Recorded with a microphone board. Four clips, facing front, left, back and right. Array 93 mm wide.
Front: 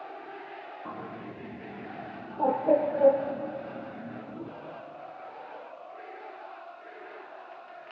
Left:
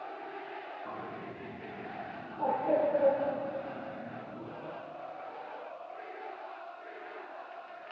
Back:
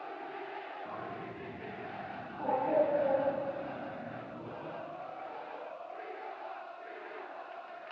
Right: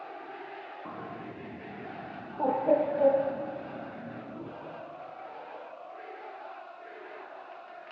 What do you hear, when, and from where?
0.8 s a bird: 35° right, 4 m